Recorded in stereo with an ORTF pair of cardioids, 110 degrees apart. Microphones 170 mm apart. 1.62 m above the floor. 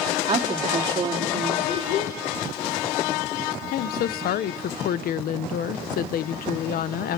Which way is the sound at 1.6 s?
60° left.